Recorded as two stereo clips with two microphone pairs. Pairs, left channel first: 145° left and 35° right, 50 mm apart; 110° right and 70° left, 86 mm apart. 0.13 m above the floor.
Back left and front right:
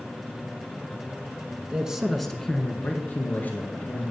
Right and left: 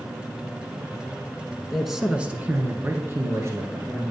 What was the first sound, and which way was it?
A man speaking, 25° right.